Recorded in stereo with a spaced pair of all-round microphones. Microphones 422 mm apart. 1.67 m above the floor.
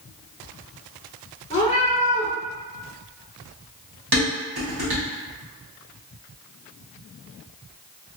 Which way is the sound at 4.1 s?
60° right (ahead or behind).